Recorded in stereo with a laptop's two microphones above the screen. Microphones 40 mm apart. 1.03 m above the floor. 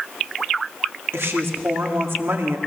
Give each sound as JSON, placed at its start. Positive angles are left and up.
{"t": 1.1, "sound": "a woman speaking", "side_deg": -75, "distance_m": 2.0}